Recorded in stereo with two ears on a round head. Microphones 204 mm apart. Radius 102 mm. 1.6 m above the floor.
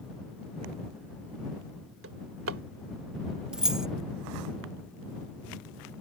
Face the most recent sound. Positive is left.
turn(degrees=-5)  # may be behind; listen again after turning